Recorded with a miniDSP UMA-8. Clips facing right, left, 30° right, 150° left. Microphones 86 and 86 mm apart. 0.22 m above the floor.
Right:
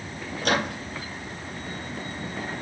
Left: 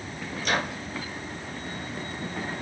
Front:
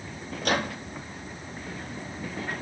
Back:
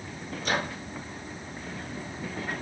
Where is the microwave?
55° right, 3.5 m.